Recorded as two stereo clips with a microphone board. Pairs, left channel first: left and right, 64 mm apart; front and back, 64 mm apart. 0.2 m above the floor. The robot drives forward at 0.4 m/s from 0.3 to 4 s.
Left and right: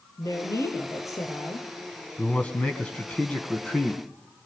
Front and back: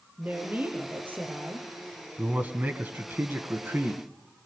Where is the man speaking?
140° left, 1.9 m; by 4.0 s 155° left, 2.5 m.